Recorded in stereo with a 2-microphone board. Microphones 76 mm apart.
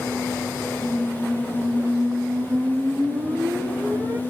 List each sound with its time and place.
0.8 s a squeak: 40° right (ahead or behind), 0.6 m